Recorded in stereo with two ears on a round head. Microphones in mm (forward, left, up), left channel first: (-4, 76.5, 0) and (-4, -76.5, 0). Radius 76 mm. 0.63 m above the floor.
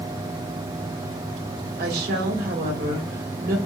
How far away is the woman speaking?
About 2 m.